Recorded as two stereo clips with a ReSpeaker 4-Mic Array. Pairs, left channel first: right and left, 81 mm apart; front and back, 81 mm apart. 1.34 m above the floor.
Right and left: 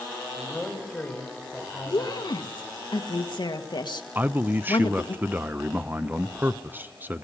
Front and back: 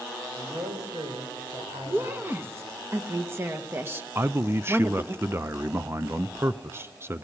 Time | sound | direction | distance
0.4 | a man speaking | 170° right | 5.5 m
1.9 | a woman speaking | 115° right | 1.6 m
4.2 | a man speaking | 140° left | 0.5 m